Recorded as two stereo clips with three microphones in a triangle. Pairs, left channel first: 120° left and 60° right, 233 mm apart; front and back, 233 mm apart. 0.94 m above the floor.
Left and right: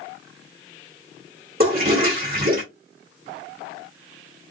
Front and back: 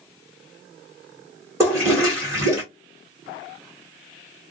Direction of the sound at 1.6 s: 100° right.